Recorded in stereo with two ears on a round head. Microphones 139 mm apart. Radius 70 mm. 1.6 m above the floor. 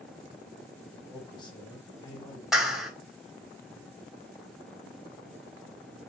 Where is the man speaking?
30° left (ahead or behind), 1.2 m.